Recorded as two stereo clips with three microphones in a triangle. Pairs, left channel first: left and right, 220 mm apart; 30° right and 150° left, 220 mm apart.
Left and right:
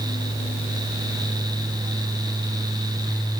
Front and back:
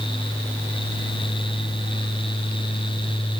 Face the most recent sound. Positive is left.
No sound to turn to.